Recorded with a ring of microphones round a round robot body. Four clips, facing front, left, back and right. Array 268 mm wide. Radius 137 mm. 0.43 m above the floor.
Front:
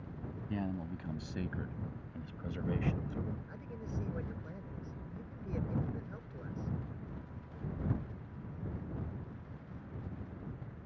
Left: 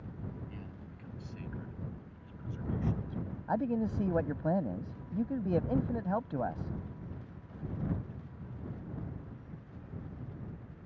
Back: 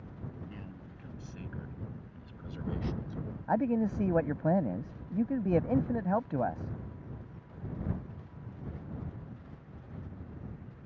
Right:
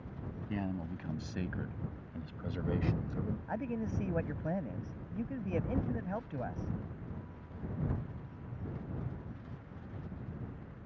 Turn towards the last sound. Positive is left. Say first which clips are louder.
# left 9 dB, back 17 dB
turn(degrees=165)